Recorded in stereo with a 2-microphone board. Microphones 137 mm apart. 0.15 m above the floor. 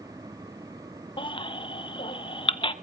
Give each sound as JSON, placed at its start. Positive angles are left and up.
{"t": 1.2, "sound": "a baby crying", "side_deg": 40, "distance_m": 0.8}